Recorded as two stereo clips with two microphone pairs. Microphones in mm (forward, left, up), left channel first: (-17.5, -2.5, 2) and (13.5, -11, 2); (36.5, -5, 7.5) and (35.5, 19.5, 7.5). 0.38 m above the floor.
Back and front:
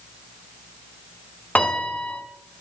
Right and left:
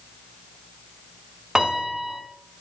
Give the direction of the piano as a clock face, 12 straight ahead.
7 o'clock.